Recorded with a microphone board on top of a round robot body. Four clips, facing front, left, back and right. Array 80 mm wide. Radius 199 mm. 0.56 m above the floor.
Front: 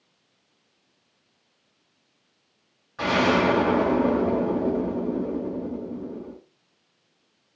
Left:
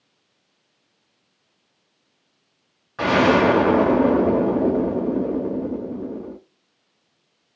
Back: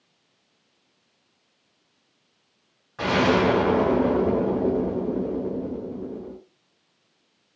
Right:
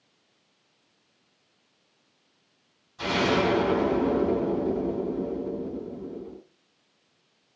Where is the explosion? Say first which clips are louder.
Left 8 dB, back 1 dB; 95° left, 0.5 m.